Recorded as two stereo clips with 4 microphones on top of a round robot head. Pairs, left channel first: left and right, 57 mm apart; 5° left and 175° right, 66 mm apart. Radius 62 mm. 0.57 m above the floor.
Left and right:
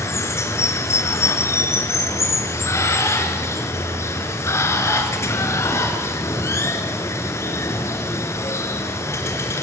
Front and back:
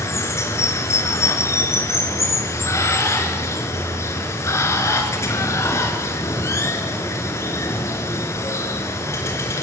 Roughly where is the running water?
Ahead left.